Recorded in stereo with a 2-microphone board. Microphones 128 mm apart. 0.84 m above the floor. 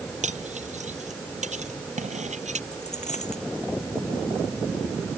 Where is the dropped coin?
60° left (ahead or behind).